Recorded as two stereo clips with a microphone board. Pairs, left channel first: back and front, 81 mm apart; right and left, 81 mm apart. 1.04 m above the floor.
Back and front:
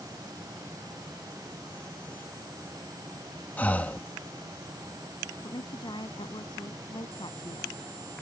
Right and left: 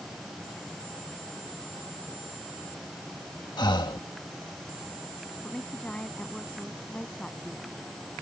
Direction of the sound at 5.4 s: 165° right.